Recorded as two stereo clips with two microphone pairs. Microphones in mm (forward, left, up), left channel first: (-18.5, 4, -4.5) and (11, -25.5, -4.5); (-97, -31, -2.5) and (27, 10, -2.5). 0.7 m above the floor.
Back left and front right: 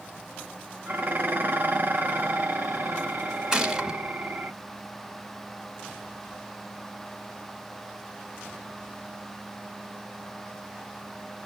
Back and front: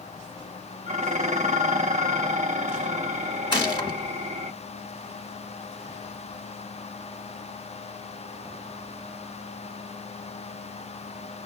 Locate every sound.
0.9 s dishes clattering: 10° right, 0.8 m
3.5 s a gunshot: 115° right, 0.8 m